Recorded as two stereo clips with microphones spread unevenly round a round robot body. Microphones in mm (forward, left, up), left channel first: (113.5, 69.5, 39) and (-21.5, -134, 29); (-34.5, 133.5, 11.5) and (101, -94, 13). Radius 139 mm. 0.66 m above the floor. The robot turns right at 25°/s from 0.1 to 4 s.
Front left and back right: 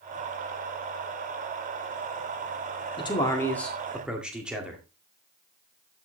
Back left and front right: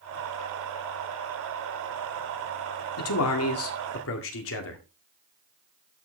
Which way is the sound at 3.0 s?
125° left.